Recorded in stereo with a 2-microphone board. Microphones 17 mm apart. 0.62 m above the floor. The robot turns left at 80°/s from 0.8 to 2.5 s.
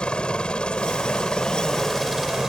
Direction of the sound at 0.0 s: 100° left.